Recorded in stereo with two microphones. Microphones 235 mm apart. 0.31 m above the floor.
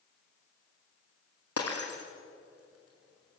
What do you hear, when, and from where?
1.6 s breaking glass: 70° left (ahead or behind), 4.5 m